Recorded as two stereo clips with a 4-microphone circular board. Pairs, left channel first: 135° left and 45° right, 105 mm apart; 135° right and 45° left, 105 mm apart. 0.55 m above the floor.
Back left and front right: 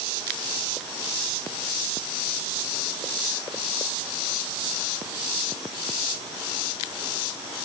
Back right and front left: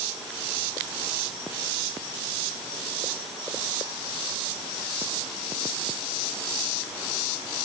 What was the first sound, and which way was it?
Only background noise.